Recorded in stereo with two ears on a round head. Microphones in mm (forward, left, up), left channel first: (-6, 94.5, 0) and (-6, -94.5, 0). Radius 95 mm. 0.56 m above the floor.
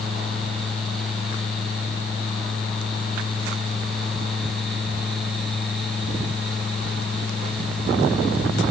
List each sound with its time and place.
Only background noise.